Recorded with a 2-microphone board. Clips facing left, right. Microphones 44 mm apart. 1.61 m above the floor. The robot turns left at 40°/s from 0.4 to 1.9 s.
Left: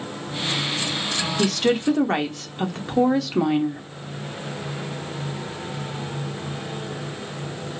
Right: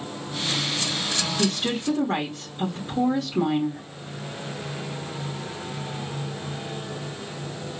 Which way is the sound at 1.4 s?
80° left.